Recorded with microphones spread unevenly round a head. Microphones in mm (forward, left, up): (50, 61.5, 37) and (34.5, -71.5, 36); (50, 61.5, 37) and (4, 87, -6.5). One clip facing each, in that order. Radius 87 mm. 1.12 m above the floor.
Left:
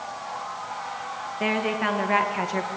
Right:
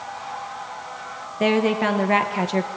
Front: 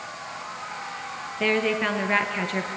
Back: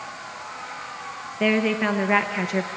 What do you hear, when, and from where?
1.4 s a woman speaking: 155° right, 1.3 m